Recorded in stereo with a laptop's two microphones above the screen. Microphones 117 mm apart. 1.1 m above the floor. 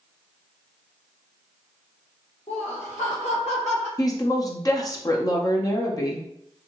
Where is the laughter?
60° left (ahead or behind), 0.8 m; by 3.9 s 65° left (ahead or behind), 1.6 m.